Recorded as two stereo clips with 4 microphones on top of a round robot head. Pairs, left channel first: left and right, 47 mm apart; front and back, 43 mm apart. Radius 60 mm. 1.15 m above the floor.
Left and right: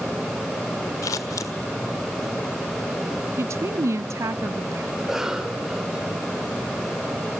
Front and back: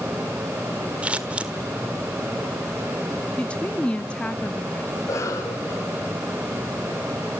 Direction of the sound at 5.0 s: 10° right.